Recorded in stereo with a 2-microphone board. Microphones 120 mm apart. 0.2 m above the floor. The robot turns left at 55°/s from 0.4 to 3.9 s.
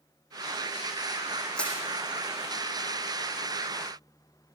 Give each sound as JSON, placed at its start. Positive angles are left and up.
{"t": 1.6, "sound": "crushing", "side_deg": 5, "distance_m": 7.0}